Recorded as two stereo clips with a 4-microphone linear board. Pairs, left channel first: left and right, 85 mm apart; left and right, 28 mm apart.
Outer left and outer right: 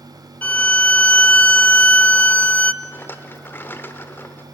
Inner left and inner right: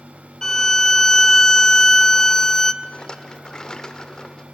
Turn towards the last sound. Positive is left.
turn(degrees=25)  # may be behind; listen again after turning